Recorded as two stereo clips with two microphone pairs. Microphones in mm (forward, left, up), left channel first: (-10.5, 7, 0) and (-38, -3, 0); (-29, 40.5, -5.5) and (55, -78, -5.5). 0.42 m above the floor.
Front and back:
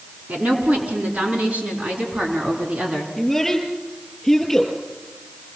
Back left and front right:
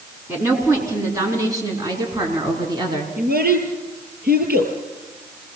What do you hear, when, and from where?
0.3 s a woman speaking: 130° right, 5 m; by 3.1 s 115° right, 5.5 m
3.2 s a child speaking: 60° right, 6 m